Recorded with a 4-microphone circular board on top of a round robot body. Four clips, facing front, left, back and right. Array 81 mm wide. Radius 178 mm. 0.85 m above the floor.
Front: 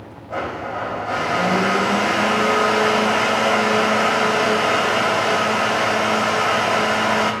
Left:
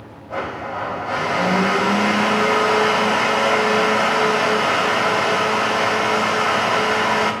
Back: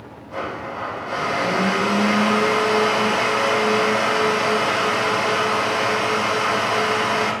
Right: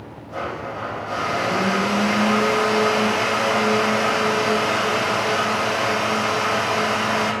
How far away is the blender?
About 3.5 m.